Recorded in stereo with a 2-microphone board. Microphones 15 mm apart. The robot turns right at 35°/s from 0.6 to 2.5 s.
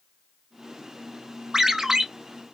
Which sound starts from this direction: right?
A ringtone, at 1.5 s.